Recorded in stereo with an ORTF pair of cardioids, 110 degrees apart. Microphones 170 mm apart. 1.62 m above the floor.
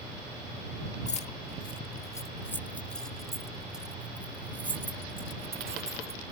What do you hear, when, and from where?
1.1 s keys jangling: 45° left; by 6.3 s 20° right